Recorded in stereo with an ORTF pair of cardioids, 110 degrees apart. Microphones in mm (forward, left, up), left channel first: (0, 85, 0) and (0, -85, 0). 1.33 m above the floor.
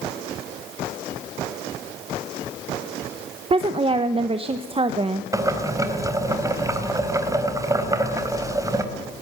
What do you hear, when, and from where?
3.5 s a woman speaking: 35° right, 1.3 m
5.3 s boiling: 20° right, 3.5 m